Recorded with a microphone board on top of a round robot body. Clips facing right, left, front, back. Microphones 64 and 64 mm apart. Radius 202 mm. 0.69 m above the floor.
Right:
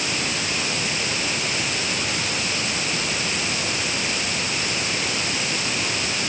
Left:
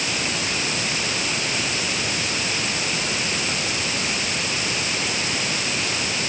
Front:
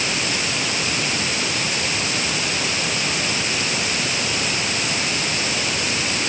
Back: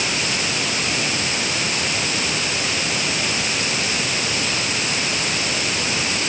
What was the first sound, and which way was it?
Only background noise.